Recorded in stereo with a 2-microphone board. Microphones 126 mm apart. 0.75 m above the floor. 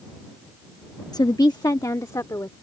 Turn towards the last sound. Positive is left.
turn(degrees=25)  # may be behind; listen again after turning